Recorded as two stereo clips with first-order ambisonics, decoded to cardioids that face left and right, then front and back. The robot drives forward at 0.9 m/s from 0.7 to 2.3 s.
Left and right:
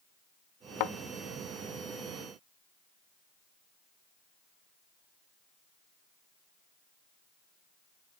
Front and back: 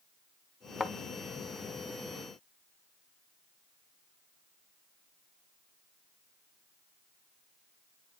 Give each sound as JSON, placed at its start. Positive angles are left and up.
{"t": 0.8, "sound": "a thud", "azimuth_deg": 75, "distance_m": 0.5}